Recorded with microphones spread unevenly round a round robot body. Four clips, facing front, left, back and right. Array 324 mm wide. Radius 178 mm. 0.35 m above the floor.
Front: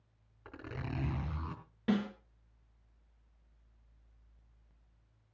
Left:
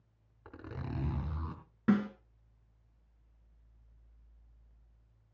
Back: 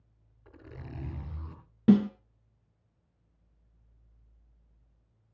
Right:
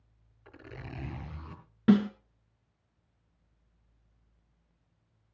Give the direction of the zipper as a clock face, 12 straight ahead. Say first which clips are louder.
Left 2 dB, front 4 dB; 10 o'clock.